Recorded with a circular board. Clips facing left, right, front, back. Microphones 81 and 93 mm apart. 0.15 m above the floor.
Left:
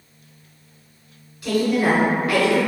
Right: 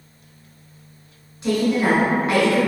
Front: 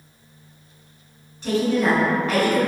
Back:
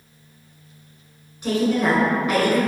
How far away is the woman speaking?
About 1.3 m.